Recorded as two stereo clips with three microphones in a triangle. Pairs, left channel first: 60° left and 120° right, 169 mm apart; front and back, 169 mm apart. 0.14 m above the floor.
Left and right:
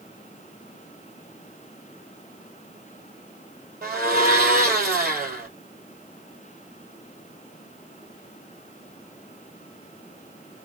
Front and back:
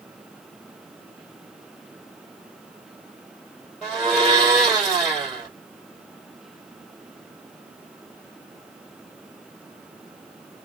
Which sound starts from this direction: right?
A blender, at 3.8 s.